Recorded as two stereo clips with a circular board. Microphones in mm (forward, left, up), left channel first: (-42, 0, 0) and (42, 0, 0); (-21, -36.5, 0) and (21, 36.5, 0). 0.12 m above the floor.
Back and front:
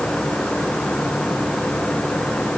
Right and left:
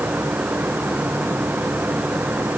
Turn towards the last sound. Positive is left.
No sound to turn to.